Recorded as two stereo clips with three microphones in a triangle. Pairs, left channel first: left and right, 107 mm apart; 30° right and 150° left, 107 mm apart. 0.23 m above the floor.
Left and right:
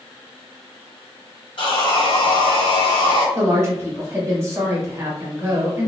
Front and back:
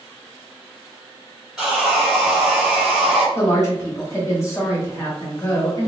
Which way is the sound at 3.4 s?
60° right.